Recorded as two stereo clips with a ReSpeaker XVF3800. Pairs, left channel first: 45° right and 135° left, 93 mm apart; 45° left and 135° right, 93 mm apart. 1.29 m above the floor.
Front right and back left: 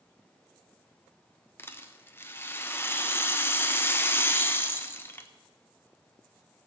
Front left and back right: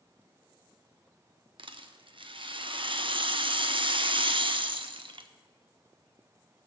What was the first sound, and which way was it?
A rattle, 110° right.